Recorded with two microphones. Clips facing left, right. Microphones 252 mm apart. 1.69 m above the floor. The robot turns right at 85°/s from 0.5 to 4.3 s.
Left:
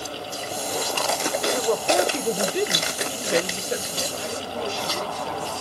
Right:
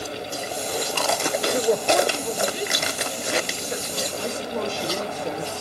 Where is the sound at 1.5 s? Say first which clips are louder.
Right 2 dB; 30° right, 0.6 m; by 4.1 s 175° right, 0.6 m.